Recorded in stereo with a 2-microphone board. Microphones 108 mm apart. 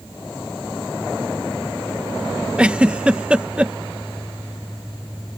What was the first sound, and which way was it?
A giggle, 10° right (ahead or behind).